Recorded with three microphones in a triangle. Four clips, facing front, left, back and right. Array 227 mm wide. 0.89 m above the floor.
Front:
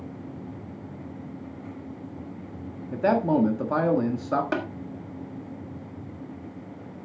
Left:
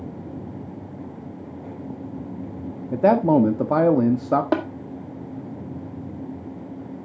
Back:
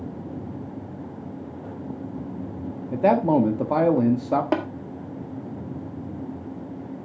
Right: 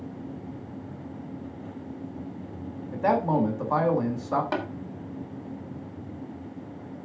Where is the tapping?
110° left, 1.7 m.